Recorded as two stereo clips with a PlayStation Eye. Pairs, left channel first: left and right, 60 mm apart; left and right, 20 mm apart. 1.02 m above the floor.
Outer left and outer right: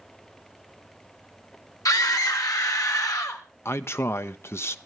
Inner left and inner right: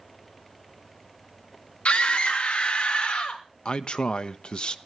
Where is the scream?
80° left, 2.5 m; by 3.4 s 75° left (ahead or behind), 3.5 m.